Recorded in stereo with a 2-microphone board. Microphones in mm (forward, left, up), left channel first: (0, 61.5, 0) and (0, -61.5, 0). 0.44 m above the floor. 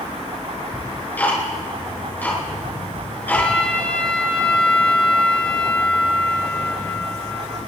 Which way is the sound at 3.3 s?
10° left (ahead or behind).